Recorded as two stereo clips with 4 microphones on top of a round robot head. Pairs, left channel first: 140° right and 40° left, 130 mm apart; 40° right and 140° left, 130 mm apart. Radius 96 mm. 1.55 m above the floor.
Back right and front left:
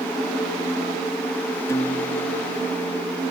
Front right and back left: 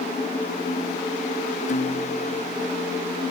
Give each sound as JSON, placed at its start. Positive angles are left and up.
{"t": 1.7, "sound": "a guitar", "azimuth_deg": -75}